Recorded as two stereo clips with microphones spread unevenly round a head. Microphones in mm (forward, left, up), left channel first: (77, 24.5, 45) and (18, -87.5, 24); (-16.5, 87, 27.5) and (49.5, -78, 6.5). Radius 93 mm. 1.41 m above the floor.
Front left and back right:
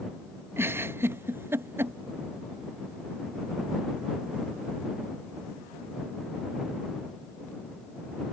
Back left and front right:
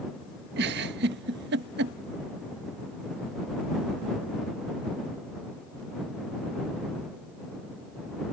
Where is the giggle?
40° right.